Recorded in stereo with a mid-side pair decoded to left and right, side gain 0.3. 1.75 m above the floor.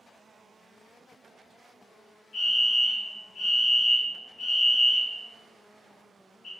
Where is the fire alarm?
45° left, 1.2 m.